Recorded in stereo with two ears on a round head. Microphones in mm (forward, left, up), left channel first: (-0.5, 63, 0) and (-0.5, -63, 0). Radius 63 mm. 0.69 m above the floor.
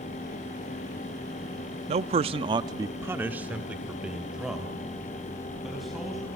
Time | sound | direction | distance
1.9 | a man speaking | 45° right (ahead or behind) | 0.7 m